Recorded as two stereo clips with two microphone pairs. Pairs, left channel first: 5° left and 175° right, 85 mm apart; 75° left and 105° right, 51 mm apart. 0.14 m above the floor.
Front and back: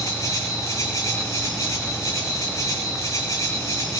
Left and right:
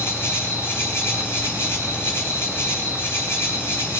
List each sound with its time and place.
0.0 s an insect: 55° left, 5.5 m